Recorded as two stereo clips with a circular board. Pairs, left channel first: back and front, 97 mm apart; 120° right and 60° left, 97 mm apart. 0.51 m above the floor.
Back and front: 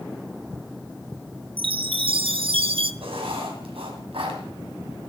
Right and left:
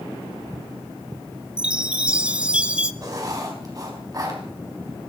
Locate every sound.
1.6 s a chime: 20° right, 0.7 m
3.0 s writing: 10° left, 3 m